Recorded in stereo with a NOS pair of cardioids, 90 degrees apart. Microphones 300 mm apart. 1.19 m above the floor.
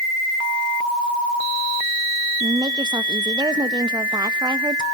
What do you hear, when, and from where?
2.4 s a woman speaking: 15° right, 1.3 m